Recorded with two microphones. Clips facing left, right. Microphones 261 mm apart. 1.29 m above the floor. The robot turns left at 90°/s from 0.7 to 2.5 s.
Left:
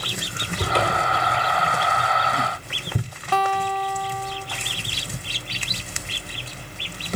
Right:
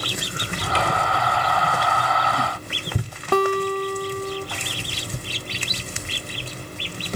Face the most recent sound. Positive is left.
turn(degrees=-55)  # may be behind; listen again after turning